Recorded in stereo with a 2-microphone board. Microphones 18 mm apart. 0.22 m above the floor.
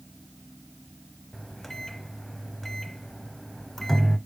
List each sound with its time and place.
1.3 s a microwave: 15° left (ahead or behind), 0.7 m